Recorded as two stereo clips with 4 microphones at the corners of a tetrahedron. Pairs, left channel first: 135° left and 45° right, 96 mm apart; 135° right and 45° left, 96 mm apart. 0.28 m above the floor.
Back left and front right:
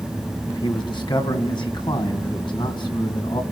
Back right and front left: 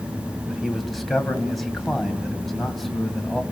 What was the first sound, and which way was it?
A man speaking, 135° left.